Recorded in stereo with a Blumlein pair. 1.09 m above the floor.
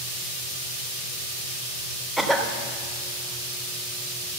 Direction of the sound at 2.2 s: 5° right.